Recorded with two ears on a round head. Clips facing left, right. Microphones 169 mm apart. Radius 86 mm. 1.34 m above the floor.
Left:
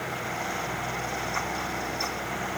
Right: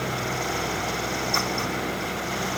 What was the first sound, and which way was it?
Only background noise.